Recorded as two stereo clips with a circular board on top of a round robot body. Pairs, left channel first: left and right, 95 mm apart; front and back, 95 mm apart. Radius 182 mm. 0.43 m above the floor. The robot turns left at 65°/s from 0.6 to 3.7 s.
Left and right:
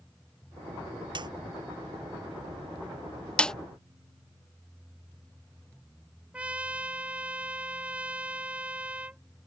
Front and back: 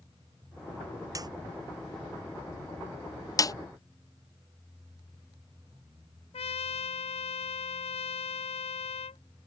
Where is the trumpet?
15° right.